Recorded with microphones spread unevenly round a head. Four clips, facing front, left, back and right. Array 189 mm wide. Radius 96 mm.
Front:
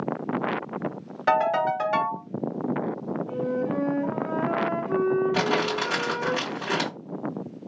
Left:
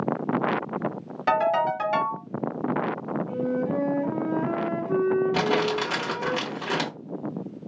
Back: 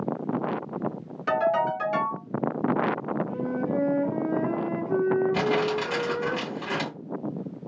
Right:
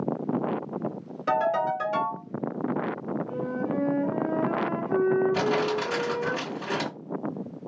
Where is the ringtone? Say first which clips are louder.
Left 2 dB, front 2 dB; 55° left, 2 m.